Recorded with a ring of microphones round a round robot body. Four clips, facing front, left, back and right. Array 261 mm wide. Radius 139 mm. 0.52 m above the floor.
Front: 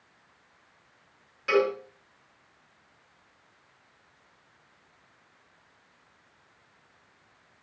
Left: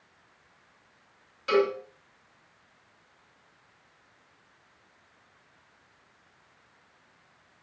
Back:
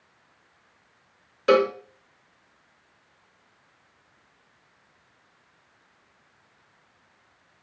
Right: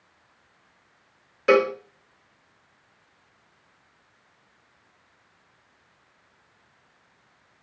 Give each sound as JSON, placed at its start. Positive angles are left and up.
{"t": 1.5, "sound": "a cowbell", "azimuth_deg": -135, "distance_m": 2.0}